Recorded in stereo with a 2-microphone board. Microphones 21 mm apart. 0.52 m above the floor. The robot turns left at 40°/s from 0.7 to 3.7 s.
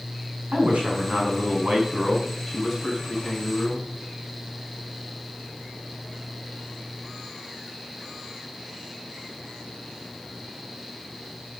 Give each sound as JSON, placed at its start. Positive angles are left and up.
{"t": 0.5, "sound": "a man speaking", "azimuth_deg": -95, "distance_m": 4.0}